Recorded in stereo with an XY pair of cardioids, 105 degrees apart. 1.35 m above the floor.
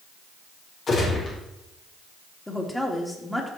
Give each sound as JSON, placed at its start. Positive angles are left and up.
{"t": 0.9, "sound": "a gunshot", "azimuth_deg": 45, "distance_m": 5.0}
{"t": 2.5, "sound": "a woman speaking", "azimuth_deg": 10, "distance_m": 3.0}